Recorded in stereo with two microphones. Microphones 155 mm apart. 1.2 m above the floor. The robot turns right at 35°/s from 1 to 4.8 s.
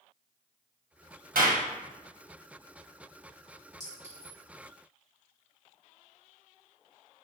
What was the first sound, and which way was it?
A clap, 70° right (ahead or behind).